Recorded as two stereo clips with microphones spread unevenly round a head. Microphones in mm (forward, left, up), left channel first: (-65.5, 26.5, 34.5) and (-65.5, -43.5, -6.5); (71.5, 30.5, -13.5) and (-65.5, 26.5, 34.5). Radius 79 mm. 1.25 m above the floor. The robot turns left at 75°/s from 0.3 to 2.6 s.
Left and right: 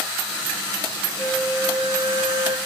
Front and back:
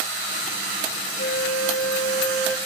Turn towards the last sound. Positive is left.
turn(degrees=-90)